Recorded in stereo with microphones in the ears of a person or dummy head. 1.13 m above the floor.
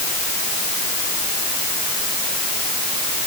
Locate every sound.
Only background noise.